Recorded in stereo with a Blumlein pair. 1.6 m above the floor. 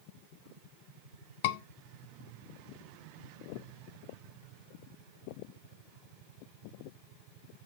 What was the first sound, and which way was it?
A scream, 50° left.